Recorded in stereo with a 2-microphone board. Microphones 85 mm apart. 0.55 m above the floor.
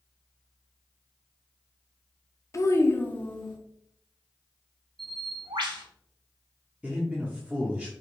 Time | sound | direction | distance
2.5 | a child speaking | 35° left (ahead or behind) | 0.5 m
5.0 | a bird | 65° right (ahead or behind) | 0.9 m
6.8 | a man speaking | 15° right (ahead or behind) | 0.7 m